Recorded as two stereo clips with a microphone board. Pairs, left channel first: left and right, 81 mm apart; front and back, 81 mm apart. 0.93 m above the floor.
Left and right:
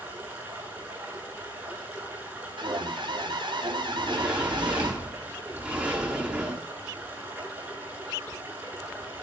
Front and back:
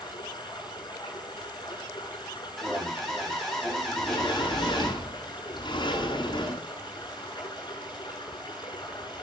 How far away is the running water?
About 9.5 m.